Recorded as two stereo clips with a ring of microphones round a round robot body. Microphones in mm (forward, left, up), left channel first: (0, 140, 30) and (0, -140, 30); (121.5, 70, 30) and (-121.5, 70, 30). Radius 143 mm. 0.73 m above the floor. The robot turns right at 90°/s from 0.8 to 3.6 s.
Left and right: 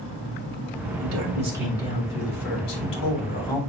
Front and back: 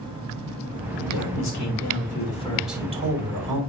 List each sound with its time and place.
1.0 s a man speaking: 60° right, 4 m; by 3.6 s 175° left, 4 m